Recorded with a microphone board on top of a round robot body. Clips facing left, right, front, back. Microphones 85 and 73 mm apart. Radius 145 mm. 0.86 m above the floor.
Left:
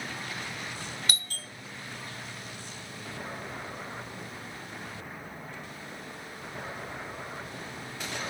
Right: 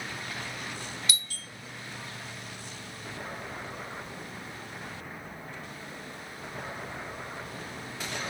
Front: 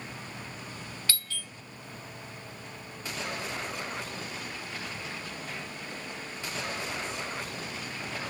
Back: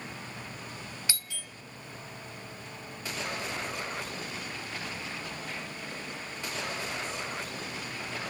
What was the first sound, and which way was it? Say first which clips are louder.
A doorbell: left 1 dB, front 2 dB; 110° left.